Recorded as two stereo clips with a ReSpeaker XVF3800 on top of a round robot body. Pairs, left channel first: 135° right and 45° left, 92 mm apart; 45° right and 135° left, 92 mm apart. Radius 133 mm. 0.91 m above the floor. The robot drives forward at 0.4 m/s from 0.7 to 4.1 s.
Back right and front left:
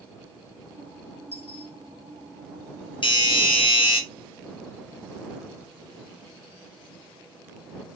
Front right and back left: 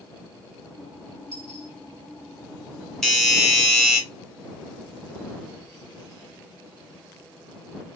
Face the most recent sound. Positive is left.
turn(degrees=-140)